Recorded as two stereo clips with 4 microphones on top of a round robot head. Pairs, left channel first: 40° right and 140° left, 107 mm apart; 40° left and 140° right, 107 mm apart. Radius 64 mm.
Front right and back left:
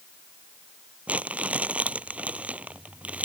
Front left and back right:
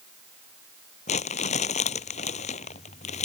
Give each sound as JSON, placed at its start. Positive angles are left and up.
{"t": 1.1, "sound": "crumpling", "azimuth_deg": 65}